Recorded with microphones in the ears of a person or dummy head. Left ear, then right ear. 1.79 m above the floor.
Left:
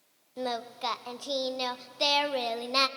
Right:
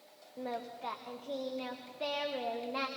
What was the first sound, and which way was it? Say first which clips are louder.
Singing: left 7 dB; 85° left.